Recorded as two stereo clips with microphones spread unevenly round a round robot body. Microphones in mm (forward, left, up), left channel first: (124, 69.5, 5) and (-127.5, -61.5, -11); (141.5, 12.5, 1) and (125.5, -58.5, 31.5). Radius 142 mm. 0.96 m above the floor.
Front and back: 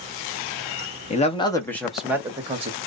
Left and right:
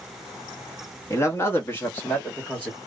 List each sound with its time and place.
1.1 s a man speaking: 90° left, 1.0 m; by 2.8 s 145° left, 1.1 m